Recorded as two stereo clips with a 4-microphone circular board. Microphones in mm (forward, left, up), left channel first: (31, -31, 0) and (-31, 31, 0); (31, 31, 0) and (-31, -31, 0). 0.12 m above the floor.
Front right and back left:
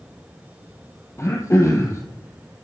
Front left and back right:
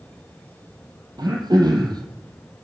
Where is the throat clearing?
100° right, 1.8 m.